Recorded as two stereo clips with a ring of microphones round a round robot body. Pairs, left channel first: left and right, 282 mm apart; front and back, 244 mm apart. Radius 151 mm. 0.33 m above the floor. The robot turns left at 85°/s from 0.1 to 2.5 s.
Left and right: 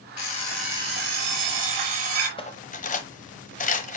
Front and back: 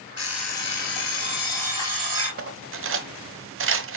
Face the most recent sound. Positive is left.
turn(degrees=150)